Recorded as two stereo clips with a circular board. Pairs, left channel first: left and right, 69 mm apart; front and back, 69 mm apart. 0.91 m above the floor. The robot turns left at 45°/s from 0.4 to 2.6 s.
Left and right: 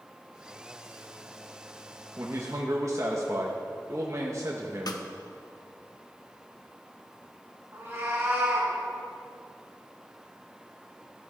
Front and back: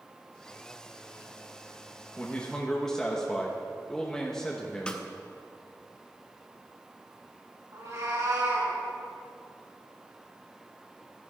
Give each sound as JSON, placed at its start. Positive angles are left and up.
{"t": 2.2, "sound": "a man speaking", "azimuth_deg": -60, "distance_m": 1.1}
{"t": 4.9, "sound": "a snare drum", "azimuth_deg": 75, "distance_m": 0.9}
{"t": 7.7, "sound": "a cat meowing", "azimuth_deg": -145, "distance_m": 4.0}